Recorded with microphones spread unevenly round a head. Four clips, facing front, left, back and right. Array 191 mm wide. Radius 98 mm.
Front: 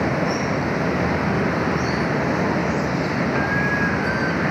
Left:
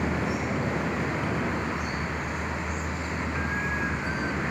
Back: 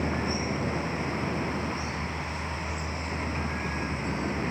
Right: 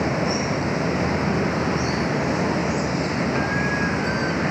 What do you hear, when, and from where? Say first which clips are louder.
0.0 s running water: right 6 dB, front 8 dB; 35° right